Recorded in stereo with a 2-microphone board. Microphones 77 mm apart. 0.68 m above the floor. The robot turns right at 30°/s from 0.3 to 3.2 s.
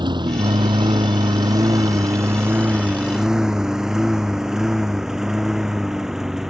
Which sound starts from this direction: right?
A lawn mower, at 0.0 s.